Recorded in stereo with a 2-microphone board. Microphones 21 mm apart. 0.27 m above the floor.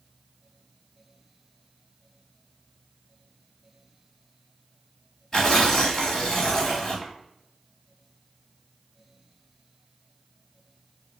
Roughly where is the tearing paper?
Left.